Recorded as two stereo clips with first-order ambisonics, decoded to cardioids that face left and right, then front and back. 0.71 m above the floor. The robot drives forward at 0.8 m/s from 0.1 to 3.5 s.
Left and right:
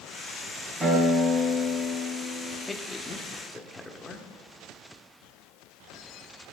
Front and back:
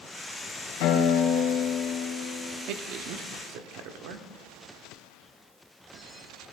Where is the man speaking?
165° left, 0.9 m; by 4.3 s 170° left, 1.5 m.